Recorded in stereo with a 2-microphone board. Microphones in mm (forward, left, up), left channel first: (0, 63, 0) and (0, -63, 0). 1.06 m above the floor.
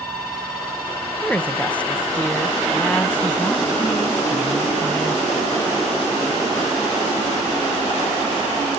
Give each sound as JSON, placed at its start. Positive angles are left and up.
{"t": 1.2, "sound": "a woman speaking", "side_deg": 10, "distance_m": 0.8}